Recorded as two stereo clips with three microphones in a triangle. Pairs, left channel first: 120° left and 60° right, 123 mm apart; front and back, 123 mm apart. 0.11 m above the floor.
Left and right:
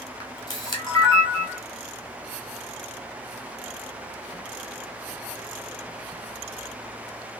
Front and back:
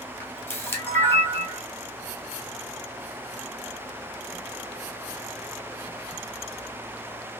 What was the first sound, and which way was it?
A camera shutter, 65° left.